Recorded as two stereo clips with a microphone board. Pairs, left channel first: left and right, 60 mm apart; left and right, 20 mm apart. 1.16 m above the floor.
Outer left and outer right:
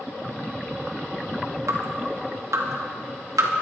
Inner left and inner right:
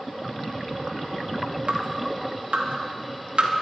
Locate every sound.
1.7 s dripping: 80° right, 2 m